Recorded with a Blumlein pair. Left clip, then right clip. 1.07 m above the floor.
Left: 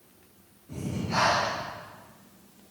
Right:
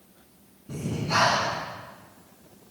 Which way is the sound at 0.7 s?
30° right.